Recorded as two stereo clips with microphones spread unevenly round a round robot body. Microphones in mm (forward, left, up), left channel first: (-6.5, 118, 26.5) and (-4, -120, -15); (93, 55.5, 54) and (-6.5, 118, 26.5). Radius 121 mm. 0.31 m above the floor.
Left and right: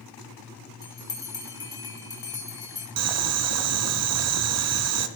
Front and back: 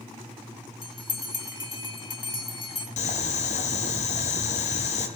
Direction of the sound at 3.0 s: 80° right.